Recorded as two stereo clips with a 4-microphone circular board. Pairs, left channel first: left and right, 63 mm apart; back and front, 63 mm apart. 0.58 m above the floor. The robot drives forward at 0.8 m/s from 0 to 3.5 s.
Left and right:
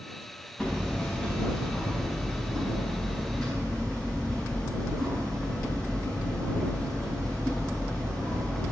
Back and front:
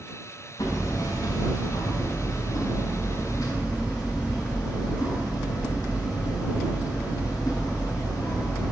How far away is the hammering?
About 4.5 m.